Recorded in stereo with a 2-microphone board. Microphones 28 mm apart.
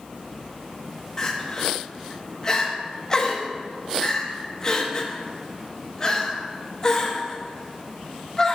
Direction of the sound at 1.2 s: 20° left (ahead or behind).